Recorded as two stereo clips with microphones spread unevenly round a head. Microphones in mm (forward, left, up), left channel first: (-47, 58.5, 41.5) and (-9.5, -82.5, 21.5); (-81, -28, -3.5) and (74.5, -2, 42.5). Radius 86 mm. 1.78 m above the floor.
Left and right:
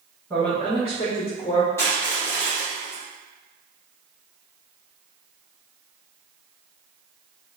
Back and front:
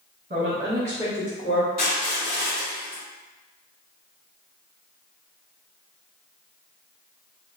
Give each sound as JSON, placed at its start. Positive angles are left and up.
{"t": 0.3, "sound": "a woman speaking", "azimuth_deg": 20, "distance_m": 0.9}
{"t": 1.8, "sound": "crushing", "azimuth_deg": 155, "distance_m": 1.4}